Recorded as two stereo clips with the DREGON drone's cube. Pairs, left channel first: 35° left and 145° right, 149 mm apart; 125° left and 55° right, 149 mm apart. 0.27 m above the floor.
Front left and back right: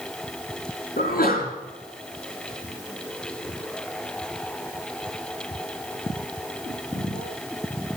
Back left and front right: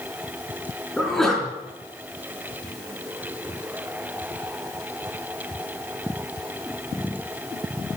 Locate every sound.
1.0 s a sneeze: 35° left, 3.5 m